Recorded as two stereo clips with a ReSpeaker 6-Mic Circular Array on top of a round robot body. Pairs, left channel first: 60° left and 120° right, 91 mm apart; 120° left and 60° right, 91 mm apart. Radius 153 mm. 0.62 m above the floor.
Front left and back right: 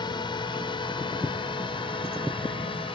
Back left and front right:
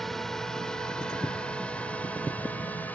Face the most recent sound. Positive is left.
turn(degrees=50)